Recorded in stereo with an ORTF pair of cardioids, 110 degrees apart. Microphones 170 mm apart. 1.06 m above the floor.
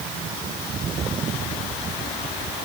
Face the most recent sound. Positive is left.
No sound to turn to.